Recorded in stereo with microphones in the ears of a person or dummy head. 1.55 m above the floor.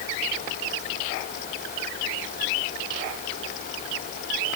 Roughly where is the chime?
No chime in this recording.